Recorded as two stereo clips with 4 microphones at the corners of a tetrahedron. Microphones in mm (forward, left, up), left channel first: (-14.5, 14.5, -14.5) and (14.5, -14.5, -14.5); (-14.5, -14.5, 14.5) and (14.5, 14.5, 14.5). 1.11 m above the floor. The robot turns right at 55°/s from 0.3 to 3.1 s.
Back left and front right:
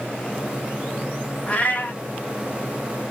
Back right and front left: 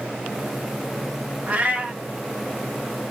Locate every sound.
1.5 s a cat meowing: 80° left, 0.8 m; by 2.0 s 110° left, 0.8 m